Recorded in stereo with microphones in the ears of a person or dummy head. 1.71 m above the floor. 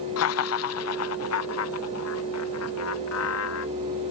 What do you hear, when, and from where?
0.2 s laughter: 70° left (ahead or behind); by 3.7 s 85° left